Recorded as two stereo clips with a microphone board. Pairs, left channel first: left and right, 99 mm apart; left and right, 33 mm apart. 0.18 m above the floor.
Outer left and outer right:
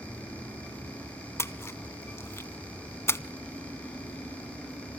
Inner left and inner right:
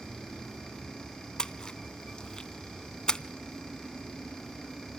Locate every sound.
1.4 s a splash: 25° left (ahead or behind), 0.6 m